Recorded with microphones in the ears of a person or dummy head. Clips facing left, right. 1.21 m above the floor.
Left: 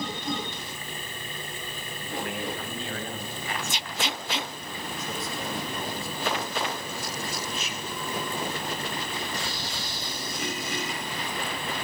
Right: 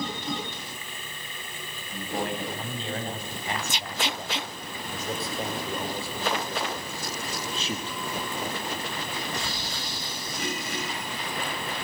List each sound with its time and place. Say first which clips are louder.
1.9 s a man speaking: right 4 dB; 25° right (ahead or behind), 9 m